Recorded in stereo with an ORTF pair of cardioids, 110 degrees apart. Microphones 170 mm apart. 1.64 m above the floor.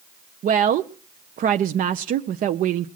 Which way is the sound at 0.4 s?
50° right.